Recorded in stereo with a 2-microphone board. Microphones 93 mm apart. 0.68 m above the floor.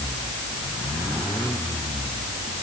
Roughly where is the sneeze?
No sneeze in this recording.